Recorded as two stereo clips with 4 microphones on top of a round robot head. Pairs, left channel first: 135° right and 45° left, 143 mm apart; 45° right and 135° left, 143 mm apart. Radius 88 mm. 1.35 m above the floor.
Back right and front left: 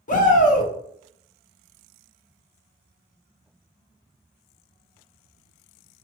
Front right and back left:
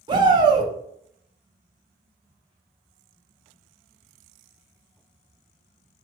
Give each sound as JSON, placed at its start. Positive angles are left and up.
{"t": 0.1, "sound": "a shout", "azimuth_deg": -165, "distance_m": 0.8}